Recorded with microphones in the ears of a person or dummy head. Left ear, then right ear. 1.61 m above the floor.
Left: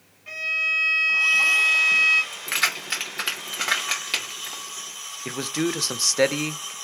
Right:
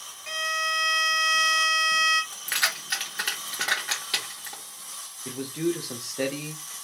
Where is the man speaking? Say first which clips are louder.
Left 3 dB; 65° left (ahead or behind), 0.6 m.